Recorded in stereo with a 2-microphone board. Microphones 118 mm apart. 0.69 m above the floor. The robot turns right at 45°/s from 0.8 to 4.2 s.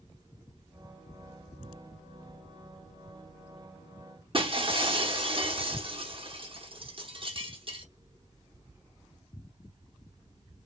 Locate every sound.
4.3 s breaking glass: 45° right (ahead or behind), 1.0 m